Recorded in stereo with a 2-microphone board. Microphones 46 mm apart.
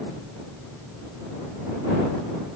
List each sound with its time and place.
Only background noise.